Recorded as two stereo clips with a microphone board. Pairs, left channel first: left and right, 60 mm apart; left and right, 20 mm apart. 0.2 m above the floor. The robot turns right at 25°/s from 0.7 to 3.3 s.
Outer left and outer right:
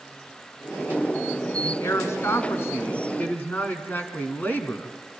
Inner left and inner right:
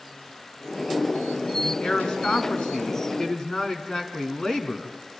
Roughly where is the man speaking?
Left.